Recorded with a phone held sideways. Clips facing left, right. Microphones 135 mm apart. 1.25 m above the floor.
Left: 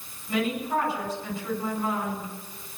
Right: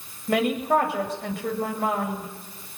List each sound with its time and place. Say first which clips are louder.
0.3 s a woman speaking: right 5 dB; 80° right, 7 m